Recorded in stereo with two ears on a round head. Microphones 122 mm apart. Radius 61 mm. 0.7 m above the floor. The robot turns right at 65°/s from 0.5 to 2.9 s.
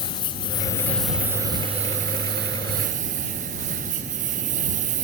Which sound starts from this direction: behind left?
A lawn mower, at 0.0 s.